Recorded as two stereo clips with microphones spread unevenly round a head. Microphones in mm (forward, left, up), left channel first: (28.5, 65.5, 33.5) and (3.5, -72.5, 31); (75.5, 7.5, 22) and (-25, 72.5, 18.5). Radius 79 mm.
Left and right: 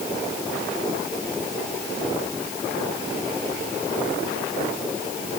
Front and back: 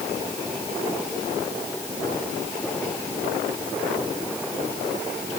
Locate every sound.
Only background noise.